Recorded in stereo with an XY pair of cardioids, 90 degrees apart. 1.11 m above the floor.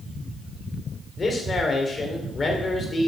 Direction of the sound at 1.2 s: 40° left.